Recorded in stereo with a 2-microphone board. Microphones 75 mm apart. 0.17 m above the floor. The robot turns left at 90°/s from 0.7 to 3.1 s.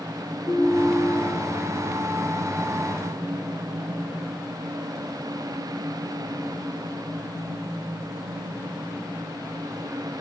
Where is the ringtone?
Straight behind, 5 m; by 1.5 s 110° left, 5 m.